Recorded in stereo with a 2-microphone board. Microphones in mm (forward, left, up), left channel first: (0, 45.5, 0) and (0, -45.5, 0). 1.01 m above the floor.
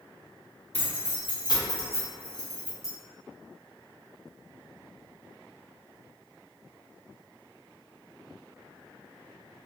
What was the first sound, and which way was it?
Keys jangling, 75° left (ahead or behind).